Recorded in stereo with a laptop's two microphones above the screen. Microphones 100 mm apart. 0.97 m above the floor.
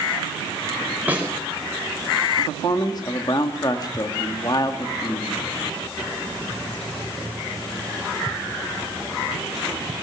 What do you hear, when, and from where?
1.1 s a snare drum: 15° right (ahead or behind), 5.5 m
2.4 s a man speaking: 40° left (ahead or behind), 1.9 m